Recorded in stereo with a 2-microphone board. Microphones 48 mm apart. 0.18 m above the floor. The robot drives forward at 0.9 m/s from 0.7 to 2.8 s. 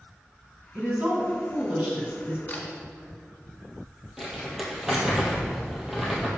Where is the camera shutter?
35° left (ahead or behind), 1.8 m.